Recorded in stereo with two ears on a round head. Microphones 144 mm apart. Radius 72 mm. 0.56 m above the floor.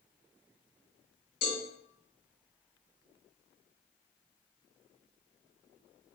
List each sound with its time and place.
1.4 s a cowbell: 55° left (ahead or behind), 1.7 m